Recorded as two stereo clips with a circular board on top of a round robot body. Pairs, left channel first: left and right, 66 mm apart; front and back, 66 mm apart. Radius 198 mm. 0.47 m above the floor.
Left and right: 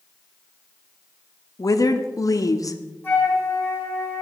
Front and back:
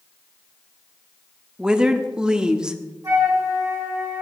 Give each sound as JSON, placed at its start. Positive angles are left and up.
{"t": 1.6, "sound": "a woman speaking", "azimuth_deg": 105, "distance_m": 1.3}
{"t": 3.0, "sound": "a flute", "azimuth_deg": 150, "distance_m": 5.5}